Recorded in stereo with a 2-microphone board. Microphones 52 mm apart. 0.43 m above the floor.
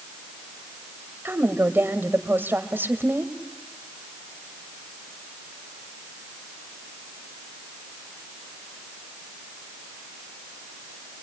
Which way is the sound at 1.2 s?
45° right (ahead or behind).